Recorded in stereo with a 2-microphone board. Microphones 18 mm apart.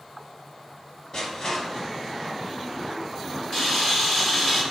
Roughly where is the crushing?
Left.